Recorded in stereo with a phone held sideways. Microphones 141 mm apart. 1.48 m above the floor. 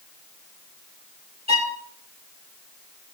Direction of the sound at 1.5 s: 50° right (ahead or behind).